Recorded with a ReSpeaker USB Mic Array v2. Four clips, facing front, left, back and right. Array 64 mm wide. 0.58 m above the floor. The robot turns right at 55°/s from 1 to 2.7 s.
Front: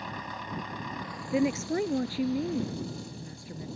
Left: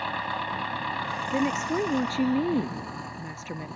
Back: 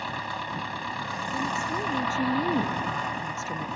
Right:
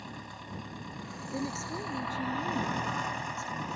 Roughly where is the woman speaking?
Ahead left.